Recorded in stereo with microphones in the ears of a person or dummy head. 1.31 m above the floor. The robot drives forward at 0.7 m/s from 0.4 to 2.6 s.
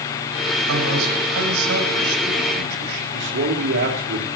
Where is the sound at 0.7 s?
80° right, 6 m; by 3.0 s 85° right, 6 m.